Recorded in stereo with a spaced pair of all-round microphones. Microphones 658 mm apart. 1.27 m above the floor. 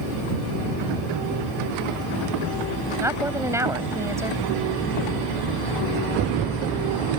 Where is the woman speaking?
5° right (ahead or behind).